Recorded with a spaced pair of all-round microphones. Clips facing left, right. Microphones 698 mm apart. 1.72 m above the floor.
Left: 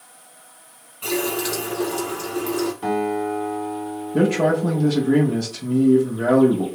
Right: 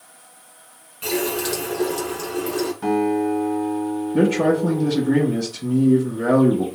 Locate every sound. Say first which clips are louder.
1.0 s a running tap: right 1 dB; 25° right (ahead or behind), 0.8 m
2.8 s a guitar: right 3 dB; 25° right (ahead or behind), 1.7 m
4.1 s a man speaking: right 1 dB; 5° left (ahead or behind), 0.6 m